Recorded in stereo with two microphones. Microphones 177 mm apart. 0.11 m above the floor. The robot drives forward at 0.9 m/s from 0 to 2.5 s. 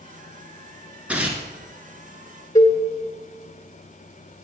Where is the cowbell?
20° left (ahead or behind), 1.8 m.